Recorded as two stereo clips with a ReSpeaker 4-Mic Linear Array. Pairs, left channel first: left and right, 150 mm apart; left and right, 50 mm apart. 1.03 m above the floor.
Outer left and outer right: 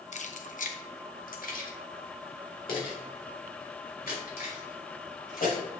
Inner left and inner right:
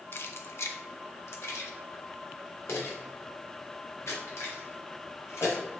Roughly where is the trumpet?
No trumpet in this recording.